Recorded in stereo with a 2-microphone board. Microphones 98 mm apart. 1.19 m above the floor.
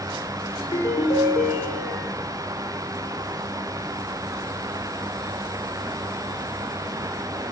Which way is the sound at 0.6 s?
60° left (ahead or behind).